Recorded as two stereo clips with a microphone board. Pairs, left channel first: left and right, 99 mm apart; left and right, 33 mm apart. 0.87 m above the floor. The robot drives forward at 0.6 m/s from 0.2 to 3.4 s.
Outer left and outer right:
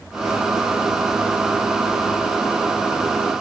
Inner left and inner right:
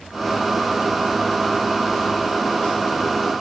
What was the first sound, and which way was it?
Only background noise.